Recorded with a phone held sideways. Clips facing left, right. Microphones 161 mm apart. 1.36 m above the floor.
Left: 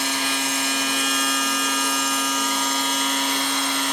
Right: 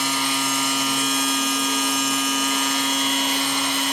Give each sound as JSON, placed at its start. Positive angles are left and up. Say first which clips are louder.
{"t": 0.0, "sound": "a machine running", "louder": "right 1 dB", "side_deg": 80, "distance_m": 9.0}